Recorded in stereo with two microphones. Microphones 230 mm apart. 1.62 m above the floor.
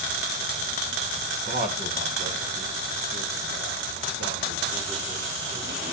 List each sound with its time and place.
1.4 s a man speaking: 40° right (ahead or behind), 1.6 m; by 5.8 s 55° right (ahead or behind), 4 m